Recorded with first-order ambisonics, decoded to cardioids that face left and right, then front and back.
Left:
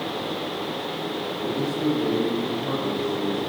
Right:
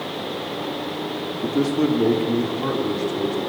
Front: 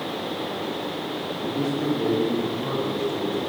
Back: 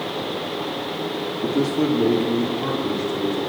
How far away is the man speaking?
About 2.0 m.